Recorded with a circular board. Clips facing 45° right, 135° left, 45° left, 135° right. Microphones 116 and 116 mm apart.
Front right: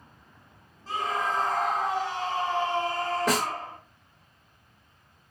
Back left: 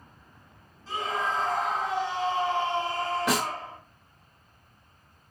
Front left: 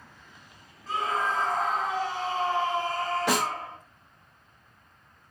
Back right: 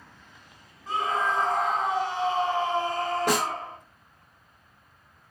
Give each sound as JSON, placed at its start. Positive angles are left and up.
{"t": 0.9, "sound": "a scream", "azimuth_deg": -70, "distance_m": 2.0}
{"t": 3.3, "sound": "a snare drum", "azimuth_deg": -90, "distance_m": 2.5}